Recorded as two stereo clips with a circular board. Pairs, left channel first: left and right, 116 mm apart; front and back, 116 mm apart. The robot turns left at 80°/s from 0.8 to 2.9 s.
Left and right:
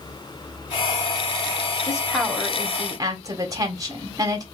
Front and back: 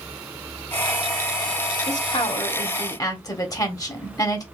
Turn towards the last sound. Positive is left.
turn(degrees=-45)